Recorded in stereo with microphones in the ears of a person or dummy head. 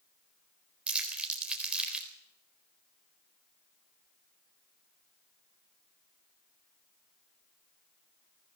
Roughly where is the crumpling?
Centre.